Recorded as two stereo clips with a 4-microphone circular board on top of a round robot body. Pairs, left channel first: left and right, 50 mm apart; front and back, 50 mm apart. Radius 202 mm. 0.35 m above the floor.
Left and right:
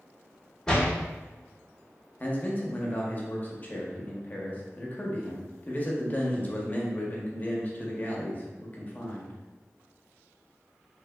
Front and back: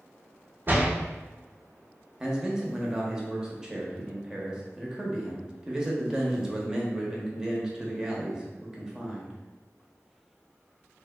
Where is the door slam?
160° left, 0.9 m.